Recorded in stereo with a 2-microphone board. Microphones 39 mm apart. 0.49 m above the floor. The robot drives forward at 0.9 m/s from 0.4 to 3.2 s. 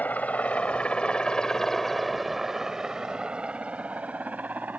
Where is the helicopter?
45° left (ahead or behind); by 4.8 s 45° right (ahead or behind).